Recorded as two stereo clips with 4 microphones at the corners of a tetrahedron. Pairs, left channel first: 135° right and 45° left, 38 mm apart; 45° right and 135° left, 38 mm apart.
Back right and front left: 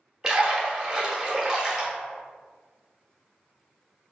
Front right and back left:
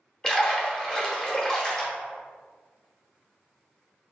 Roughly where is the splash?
Ahead.